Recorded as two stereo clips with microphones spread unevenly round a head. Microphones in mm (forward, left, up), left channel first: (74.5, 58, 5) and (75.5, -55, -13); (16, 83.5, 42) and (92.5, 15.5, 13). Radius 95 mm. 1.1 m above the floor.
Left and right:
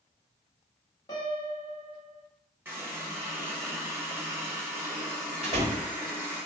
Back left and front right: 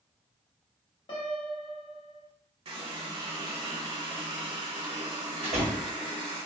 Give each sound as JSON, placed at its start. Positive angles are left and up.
{"t": 1.1, "sound": "a piano", "azimuth_deg": 140, "distance_m": 0.9}
{"t": 2.6, "sound": "a running tap", "azimuth_deg": -20, "distance_m": 1.5}
{"t": 5.4, "sound": "a door slam", "azimuth_deg": -70, "distance_m": 1.4}